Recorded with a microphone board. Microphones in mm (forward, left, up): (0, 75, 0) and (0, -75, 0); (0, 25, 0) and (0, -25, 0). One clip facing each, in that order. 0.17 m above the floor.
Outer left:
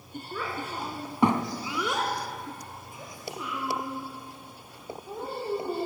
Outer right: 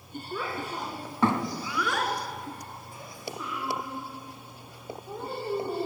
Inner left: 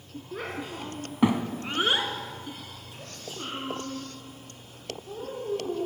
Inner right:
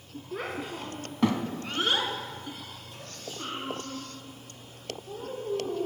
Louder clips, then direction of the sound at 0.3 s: Outer right 1 dB, inner right 1 dB; 5° right (ahead or behind).